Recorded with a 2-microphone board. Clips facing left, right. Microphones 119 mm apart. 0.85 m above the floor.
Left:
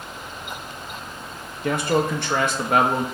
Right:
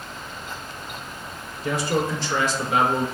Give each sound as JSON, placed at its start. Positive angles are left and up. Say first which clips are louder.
{"t": 1.6, "sound": "a man speaking", "louder": "left 2 dB", "side_deg": 60, "distance_m": 0.5}